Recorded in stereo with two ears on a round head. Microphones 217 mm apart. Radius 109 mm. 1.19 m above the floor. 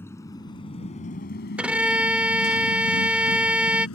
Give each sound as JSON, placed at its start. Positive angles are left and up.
{"t": 0.0, "sound": "a motorcycle", "side_deg": 10}
{"t": 1.6, "sound": "a violin", "side_deg": -5}